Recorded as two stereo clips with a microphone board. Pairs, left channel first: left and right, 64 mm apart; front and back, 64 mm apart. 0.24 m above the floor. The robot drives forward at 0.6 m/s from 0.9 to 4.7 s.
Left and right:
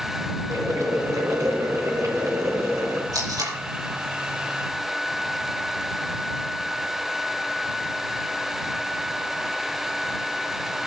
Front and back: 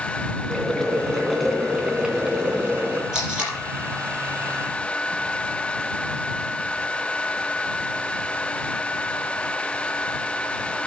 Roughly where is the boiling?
Right.